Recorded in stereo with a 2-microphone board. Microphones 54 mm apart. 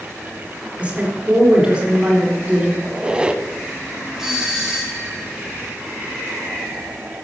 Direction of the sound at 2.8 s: 15° right (ahead or behind).